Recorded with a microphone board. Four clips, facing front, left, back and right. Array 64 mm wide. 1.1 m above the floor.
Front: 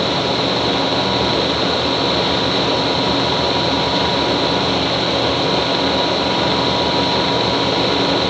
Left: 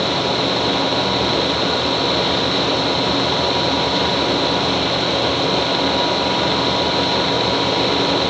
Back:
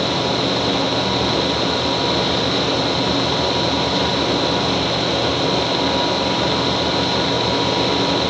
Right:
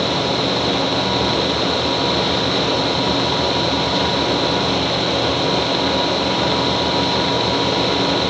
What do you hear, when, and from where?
Only background noise.